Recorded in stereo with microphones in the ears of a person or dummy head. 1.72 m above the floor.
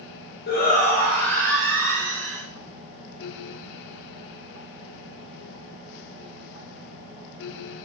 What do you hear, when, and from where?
0.5 s a shout: 50° left (ahead or behind), 0.6 m; by 2.4 s centre (ahead or behind), 1.9 m